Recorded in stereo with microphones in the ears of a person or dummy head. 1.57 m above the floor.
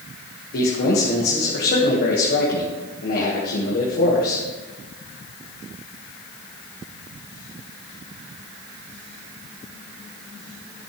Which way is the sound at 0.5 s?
55° left (ahead or behind).